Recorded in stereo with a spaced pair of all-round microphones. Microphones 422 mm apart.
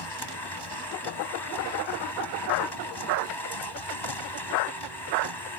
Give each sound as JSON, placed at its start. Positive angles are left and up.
{"t": 0.0, "sound": "a machine running", "side_deg": 75}